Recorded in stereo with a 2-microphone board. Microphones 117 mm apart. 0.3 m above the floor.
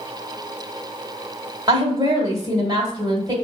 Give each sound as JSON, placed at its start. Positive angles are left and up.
{"t": 1.7, "sound": "a woman speaking", "side_deg": -35, "distance_m": 1.7}